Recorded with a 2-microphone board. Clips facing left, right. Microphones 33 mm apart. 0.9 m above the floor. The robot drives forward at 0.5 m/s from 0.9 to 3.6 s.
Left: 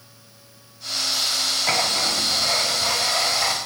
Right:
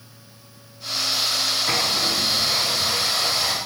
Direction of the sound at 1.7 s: 65° left (ahead or behind).